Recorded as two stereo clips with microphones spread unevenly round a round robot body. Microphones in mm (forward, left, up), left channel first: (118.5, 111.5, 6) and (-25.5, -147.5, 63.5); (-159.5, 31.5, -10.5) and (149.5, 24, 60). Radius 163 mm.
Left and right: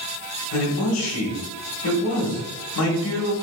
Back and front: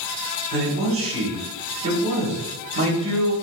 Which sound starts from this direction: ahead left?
A man speaking, at 0.5 s.